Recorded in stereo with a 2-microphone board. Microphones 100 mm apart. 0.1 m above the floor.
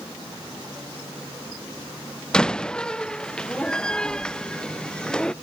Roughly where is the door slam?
Centre.